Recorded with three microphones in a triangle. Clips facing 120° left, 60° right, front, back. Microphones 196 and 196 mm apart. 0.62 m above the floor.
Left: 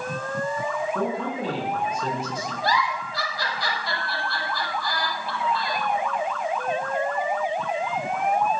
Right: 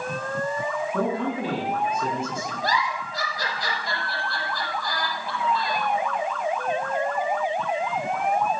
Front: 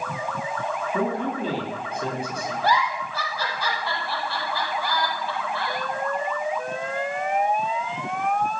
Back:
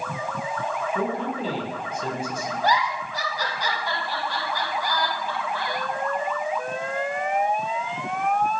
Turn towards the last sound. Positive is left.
turn(degrees=-105)